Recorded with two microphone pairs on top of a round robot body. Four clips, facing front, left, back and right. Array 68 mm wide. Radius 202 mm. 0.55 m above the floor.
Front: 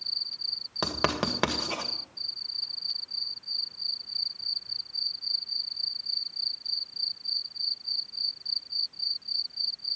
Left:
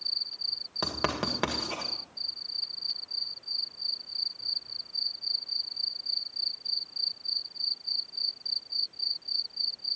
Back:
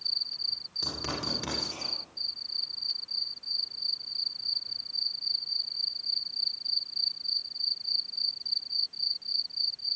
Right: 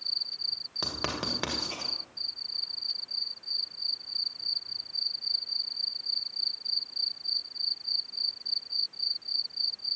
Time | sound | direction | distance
0.8 | writing | 10° left | 2 m